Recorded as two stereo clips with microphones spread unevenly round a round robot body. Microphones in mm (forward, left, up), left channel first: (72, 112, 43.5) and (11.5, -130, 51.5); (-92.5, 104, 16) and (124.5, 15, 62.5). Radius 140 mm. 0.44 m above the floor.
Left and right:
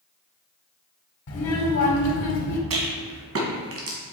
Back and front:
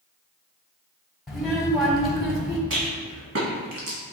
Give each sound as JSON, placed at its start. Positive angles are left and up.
{"t": 1.3, "sound": "a child speaking", "azimuth_deg": 70, "distance_m": 2.0}
{"t": 2.7, "sound": "a rattle", "azimuth_deg": -70, "distance_m": 1.6}